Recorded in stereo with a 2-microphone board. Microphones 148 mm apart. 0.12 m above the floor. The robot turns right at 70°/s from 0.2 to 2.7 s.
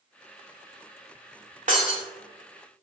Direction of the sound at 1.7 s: 55° right (ahead or behind).